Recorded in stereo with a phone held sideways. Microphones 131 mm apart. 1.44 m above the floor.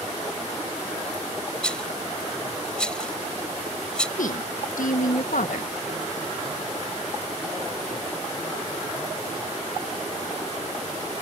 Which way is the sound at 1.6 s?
5° left (ahead or behind).